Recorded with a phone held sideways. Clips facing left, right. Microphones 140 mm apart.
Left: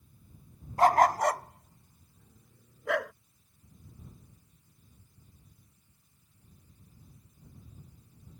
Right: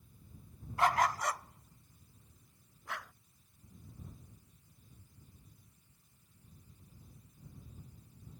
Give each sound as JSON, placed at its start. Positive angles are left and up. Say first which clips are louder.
{"t": 0.8, "sound": "a dog barking", "louder": "left 8 dB", "side_deg": 40}